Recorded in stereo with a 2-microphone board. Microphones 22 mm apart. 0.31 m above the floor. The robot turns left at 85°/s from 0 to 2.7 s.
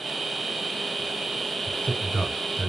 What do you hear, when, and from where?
1.7 s a man speaking: 75° left (ahead or behind), 3.5 m; by 2.7 s centre (ahead or behind), 3.5 m